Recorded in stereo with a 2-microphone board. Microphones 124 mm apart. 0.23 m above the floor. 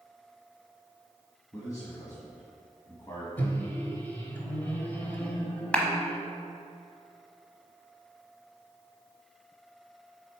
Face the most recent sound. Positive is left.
turn(degrees=10)  # may be behind; listen again after turning